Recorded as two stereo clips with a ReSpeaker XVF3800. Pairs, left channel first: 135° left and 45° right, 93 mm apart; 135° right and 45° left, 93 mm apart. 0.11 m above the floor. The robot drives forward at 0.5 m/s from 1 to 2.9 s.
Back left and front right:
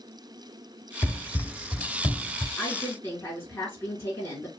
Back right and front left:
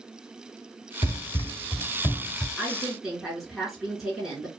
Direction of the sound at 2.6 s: 120° left.